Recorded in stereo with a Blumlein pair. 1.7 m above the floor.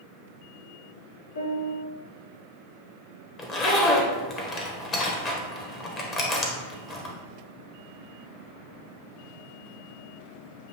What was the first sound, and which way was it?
A piano, 65° left.